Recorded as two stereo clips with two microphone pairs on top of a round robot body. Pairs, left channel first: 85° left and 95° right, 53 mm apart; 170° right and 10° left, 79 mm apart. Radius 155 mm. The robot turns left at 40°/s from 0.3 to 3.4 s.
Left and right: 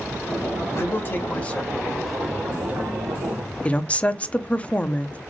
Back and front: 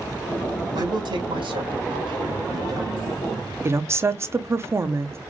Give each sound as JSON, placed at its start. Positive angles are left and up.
{"t": 0.8, "sound": "a man speaking", "azimuth_deg": 45, "distance_m": 2.0}
{"t": 3.6, "sound": "a woman speaking", "azimuth_deg": 45, "distance_m": 0.9}